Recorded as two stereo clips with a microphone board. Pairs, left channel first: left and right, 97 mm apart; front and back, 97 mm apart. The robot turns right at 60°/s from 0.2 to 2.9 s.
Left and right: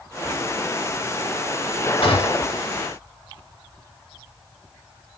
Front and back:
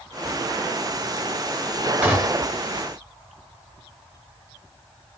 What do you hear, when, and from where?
2.0 s a gunshot: 105° left, 1.4 m; by 2.6 s 135° left, 1.4 m